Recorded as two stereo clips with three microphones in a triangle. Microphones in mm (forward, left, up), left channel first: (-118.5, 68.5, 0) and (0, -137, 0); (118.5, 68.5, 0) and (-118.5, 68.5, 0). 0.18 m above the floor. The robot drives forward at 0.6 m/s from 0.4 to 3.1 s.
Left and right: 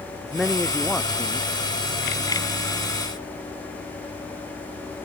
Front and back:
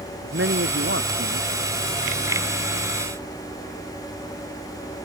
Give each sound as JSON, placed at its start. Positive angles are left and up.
{"t": 0.2, "sound": "a man speaking", "azimuth_deg": -150}